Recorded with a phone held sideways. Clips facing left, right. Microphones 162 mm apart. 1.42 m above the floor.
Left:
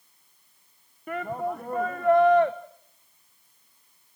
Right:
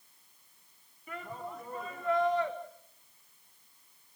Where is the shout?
60° left (ahead or behind), 1.2 m.